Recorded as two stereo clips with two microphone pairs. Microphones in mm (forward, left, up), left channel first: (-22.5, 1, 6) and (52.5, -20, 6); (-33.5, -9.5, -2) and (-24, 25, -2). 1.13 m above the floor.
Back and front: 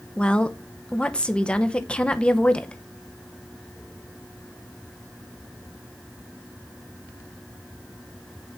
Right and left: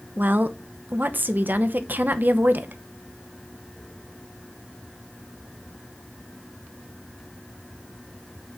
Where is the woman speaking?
90° left, 0.9 m.